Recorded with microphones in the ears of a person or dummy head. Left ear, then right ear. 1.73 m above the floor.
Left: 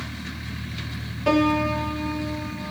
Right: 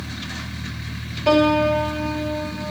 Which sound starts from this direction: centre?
A piano, at 1.3 s.